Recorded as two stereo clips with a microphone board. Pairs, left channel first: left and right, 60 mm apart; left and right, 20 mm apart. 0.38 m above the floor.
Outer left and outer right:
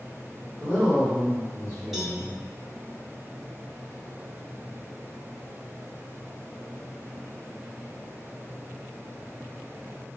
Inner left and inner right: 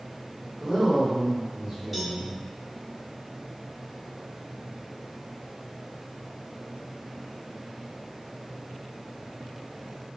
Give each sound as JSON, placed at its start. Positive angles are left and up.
{"t": 0.6, "sound": "a woman speaking", "side_deg": 15, "distance_m": 1.1}
{"t": 1.9, "sound": "a cowbell", "side_deg": -5, "distance_m": 0.7}